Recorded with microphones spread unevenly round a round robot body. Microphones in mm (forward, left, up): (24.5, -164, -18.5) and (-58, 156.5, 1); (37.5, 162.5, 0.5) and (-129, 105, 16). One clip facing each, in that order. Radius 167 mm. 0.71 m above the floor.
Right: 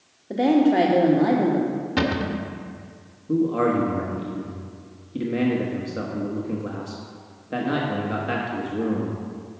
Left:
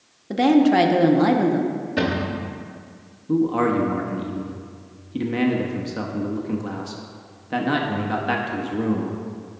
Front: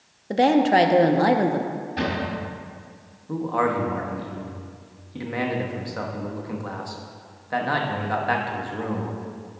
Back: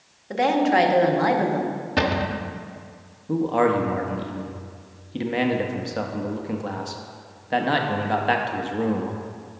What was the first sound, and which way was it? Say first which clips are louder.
A woman speaking: left 2 dB, front 2 dB; 50° left.